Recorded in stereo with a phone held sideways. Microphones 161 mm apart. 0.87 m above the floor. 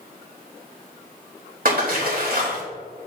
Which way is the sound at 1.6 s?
65° right (ahead or behind).